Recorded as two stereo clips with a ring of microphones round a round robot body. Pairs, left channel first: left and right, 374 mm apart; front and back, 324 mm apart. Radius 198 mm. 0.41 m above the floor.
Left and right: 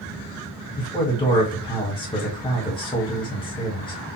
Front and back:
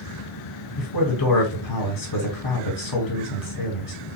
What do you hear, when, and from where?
0.8 s a man speaking: 15° left, 2 m